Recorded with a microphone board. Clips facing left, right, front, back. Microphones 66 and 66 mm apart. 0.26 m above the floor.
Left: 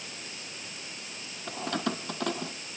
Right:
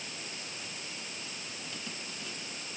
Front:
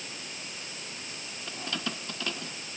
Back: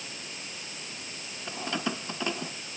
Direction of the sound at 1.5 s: 110° left.